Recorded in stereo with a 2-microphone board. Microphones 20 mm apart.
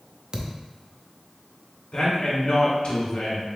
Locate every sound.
0.3 s a thud: 30° right (ahead or behind), 0.6 m
1.9 s a man speaking: 60° left (ahead or behind), 1.6 m